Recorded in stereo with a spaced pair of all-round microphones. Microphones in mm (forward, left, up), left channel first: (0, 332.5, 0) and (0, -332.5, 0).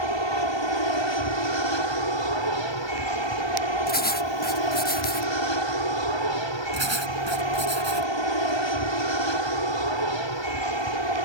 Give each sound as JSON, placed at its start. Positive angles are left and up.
{"t": 0.0, "sound": "an aircraft", "side_deg": 40}
{"t": 3.9, "sound": "writing", "side_deg": 15}
{"t": 6.7, "sound": "writing", "side_deg": -40}